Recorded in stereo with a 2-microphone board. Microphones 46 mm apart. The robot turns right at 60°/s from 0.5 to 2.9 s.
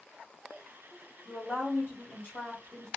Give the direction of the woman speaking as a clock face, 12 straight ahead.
11 o'clock.